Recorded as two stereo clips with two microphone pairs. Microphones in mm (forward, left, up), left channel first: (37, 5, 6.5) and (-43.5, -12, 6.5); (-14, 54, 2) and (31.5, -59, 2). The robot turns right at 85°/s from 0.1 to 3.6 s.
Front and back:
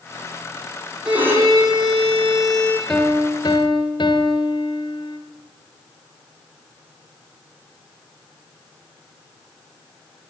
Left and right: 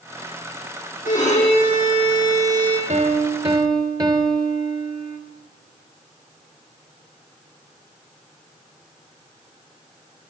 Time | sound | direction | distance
1.1 | a violin | 110° left | 7.5 m
2.9 | a piano | 70° right | 2.5 m